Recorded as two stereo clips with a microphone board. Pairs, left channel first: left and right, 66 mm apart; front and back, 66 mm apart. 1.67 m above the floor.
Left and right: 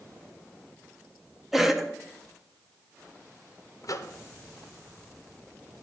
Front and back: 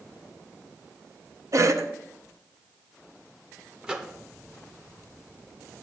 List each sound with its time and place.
1.5 s a cough: 175° right, 0.8 m
3.8 s a microwave: 105° left, 0.6 m